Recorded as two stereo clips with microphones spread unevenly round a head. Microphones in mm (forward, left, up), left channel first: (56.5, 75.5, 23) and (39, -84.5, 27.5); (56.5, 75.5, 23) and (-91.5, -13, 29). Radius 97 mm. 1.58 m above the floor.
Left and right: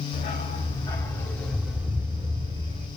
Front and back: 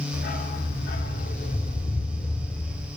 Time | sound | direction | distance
0.1 | a dog barking | 55° left | 2 m